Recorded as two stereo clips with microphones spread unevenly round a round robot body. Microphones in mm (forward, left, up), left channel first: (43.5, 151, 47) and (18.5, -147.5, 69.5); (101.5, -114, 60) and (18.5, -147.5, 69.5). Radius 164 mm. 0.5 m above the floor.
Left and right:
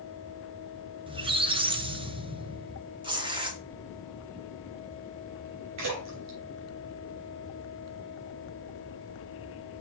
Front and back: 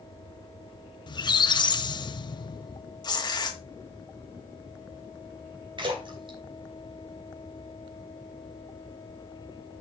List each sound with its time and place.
1.1 s a squeak: 20° right, 0.8 m
3.0 s tearing paper: 20° right, 1.4 m
5.8 s a splash: 130° right, 3 m